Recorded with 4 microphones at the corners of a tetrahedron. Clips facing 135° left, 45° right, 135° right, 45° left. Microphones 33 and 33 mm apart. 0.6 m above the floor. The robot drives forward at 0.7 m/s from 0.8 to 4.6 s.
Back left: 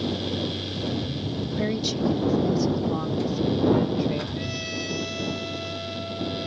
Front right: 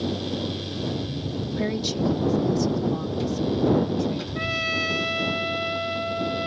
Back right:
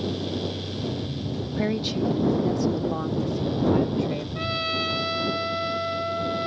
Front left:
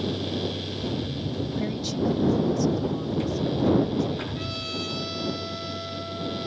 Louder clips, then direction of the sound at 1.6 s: Even, back right 5 dB; 125° right.